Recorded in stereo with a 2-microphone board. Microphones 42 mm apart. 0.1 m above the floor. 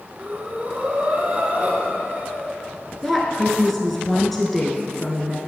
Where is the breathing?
25° right (ahead or behind), 1.4 m.